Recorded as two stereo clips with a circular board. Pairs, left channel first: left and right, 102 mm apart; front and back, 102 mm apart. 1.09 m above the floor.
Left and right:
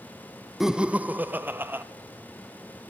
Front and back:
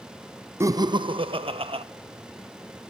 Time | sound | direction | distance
0.6 | laughter | 175° right | 0.6 m